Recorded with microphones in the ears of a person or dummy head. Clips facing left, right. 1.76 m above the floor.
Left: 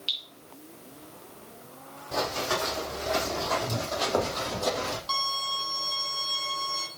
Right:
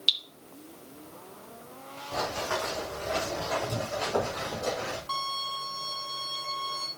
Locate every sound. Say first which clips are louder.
0.1 s dripping: right 3 dB; 15° right (ahead or behind), 0.9 m
2.1 s running footsteps: left 2 dB; 50° left (ahead or behind), 4.5 m; by 5.0 s 60° left (ahead or behind), 3.5 m
5.1 s a violin: left 2 dB; 45° left (ahead or behind), 3.5 m